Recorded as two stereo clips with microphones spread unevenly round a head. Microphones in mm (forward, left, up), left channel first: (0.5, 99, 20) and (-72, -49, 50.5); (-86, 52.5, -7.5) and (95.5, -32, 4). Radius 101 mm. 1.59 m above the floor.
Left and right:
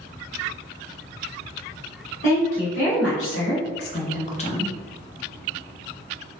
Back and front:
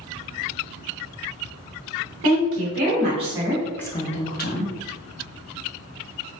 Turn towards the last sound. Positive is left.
turn(degrees=130)